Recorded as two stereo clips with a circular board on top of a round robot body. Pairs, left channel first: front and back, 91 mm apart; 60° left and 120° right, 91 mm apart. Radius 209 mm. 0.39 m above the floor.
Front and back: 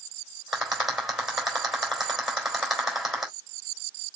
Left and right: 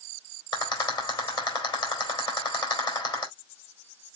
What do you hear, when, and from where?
0.5 s a rattle: 95° left, 3.5 m